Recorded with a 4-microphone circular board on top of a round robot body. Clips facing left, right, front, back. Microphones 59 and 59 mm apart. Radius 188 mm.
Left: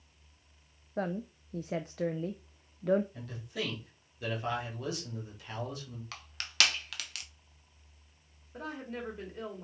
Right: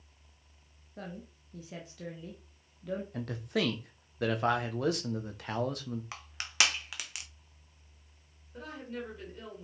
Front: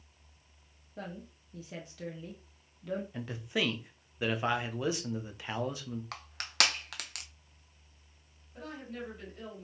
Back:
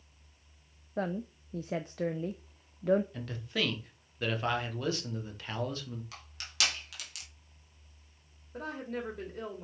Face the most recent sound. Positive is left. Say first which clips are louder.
# left 1 dB, back 5 dB
turn(degrees=160)